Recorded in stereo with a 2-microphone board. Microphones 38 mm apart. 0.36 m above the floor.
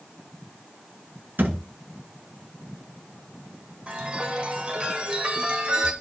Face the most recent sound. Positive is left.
turn(degrees=-30)  # may be behind; listen again after turning